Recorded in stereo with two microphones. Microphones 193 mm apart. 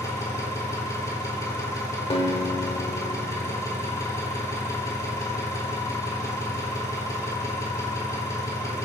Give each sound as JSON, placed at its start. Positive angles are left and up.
{"t": 0.0, "sound": "an engine running", "side_deg": 15, "distance_m": 3.0}
{"t": 2.1, "sound": "a guitar", "side_deg": 30, "distance_m": 1.1}